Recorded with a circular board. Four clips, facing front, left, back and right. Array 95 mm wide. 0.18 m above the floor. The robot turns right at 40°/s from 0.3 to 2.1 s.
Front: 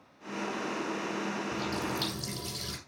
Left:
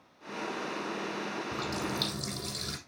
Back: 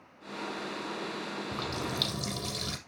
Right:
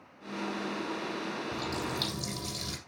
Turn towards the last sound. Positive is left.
turn(degrees=-175)